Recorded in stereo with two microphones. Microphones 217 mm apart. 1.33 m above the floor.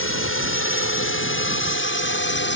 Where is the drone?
75° left (ahead or behind); by 2.6 s 60° left (ahead or behind).